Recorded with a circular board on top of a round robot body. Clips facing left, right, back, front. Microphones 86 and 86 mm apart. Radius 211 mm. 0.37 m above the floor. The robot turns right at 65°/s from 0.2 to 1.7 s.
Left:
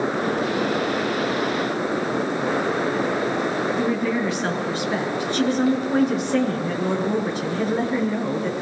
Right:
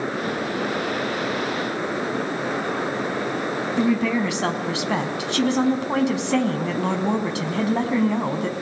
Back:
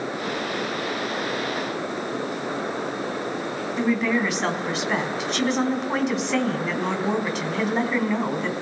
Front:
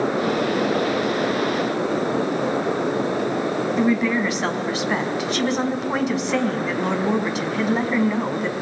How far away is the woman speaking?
About 4.5 m.